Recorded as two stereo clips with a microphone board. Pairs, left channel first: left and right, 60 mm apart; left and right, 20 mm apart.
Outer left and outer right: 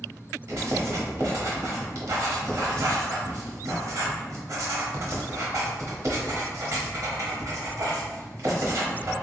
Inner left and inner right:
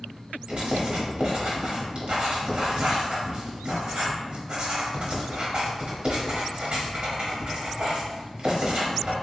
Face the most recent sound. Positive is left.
turn(degrees=-60)  # may be behind; listen again after turning